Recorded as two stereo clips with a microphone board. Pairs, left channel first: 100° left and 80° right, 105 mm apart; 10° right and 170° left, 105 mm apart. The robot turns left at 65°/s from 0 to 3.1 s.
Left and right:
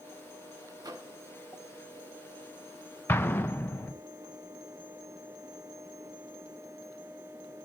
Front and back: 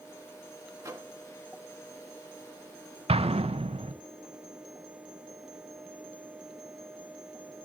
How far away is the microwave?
About 1.3 m.